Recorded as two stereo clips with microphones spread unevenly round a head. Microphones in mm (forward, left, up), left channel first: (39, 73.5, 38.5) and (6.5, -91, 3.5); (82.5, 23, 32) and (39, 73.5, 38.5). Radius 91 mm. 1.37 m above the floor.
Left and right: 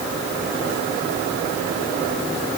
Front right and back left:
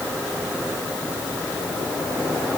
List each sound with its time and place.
Only background noise.